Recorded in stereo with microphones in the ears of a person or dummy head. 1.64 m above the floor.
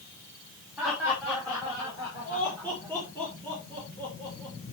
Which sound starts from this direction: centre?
Laughter, at 0.8 s.